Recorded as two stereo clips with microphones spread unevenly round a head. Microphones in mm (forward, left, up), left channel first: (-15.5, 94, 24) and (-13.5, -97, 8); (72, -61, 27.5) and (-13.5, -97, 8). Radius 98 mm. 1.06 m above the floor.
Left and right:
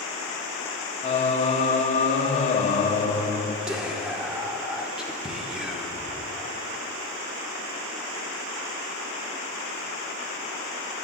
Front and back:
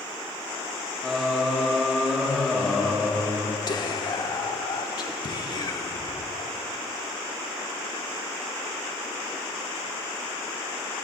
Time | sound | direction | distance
1.0 | singing | 130° left | 0.8 m
3.7 | whispering | 10° right | 1.1 m